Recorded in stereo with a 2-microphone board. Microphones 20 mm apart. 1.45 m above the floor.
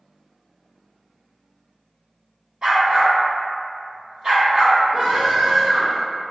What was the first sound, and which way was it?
A dog barking, 50° right (ahead or behind).